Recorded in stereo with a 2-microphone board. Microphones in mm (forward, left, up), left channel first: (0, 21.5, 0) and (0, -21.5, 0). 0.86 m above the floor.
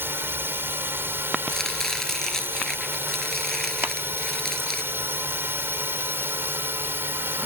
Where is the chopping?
10° left (ahead or behind).